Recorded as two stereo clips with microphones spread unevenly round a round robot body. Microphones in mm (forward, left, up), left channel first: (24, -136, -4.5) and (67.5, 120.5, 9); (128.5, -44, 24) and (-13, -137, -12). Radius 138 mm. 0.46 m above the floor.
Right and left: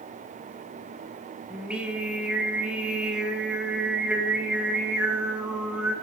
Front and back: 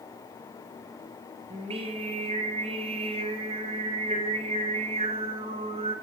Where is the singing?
170° left, 1.5 m.